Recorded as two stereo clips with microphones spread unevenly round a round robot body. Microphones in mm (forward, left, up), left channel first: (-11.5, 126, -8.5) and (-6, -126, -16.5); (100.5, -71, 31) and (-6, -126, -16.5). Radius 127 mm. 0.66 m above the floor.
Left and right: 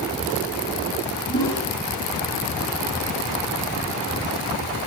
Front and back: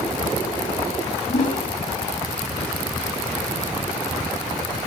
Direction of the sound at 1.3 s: 15° left.